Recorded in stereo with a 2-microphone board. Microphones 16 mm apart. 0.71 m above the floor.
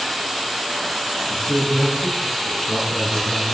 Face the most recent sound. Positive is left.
turn(degrees=40)  # may be behind; listen again after turning